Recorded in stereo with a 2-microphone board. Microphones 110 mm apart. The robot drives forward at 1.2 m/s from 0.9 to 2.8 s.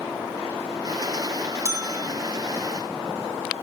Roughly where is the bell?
Right.